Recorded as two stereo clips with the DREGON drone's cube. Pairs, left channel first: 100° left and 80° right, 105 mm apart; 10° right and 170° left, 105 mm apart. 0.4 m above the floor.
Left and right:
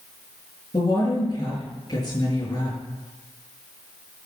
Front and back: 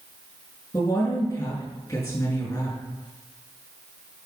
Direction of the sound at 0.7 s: 45° left.